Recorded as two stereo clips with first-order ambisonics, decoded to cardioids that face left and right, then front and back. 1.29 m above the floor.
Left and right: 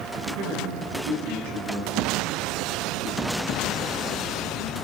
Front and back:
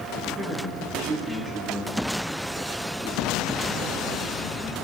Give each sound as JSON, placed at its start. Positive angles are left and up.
{"t": 0.2, "sound": "a man speaking", "azimuth_deg": -95, "distance_m": 8.5}